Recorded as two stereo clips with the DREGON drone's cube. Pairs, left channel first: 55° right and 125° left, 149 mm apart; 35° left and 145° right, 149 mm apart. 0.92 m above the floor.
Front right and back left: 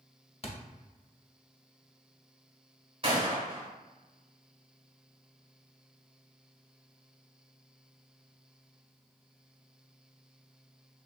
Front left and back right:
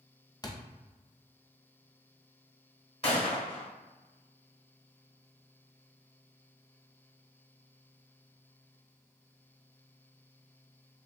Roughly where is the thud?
Ahead right.